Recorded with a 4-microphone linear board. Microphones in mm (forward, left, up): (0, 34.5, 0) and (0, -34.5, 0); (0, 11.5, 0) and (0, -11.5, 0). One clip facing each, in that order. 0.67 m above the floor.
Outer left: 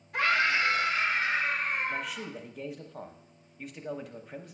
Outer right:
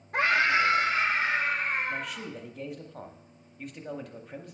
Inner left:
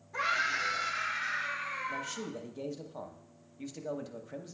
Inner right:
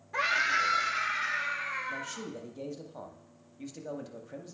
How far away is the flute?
I don't hear a flute.